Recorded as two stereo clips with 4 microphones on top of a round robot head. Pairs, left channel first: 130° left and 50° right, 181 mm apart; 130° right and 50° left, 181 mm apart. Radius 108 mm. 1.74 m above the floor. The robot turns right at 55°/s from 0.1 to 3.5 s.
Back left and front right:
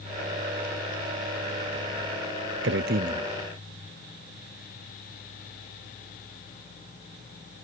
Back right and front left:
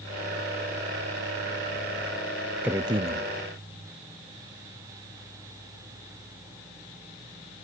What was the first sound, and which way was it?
A man speaking, 30° right.